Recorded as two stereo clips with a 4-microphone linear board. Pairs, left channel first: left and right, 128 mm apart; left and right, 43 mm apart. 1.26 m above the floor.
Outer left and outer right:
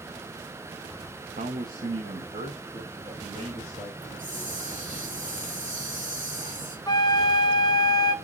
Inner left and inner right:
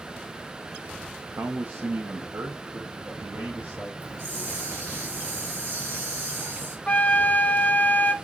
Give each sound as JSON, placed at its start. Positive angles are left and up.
{"t": 1.4, "sound": "a man speaking", "side_deg": -85, "distance_m": 0.9}
{"t": 4.0, "sound": "a hiss", "side_deg": -80, "distance_m": 3.5}
{"t": 6.9, "sound": "a flute", "side_deg": 30, "distance_m": 0.5}